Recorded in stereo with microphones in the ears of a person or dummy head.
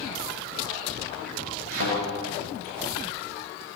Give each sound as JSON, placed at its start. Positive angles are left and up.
{"t": 1.7, "sound": "a thud", "side_deg": -85, "distance_m": 9.5}